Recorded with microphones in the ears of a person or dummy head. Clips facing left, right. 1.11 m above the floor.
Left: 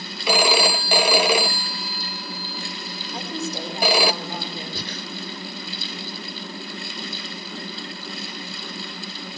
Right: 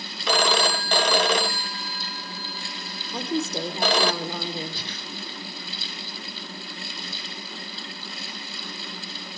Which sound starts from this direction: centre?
A phone ringing, at 0.3 s.